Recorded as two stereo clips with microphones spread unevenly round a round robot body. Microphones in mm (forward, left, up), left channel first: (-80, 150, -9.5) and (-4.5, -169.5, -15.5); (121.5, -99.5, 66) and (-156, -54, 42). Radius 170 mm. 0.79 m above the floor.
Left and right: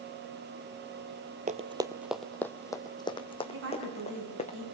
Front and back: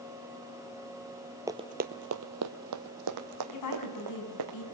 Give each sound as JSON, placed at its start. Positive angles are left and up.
{"t": 1.5, "sound": "running footsteps", "azimuth_deg": -110, "distance_m": 0.8}
{"t": 3.5, "sound": "a woman speaking", "azimuth_deg": -20, "distance_m": 6.0}